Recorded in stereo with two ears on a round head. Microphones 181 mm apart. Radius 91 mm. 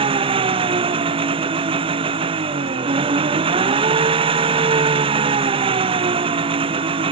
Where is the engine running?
25° right (ahead or behind).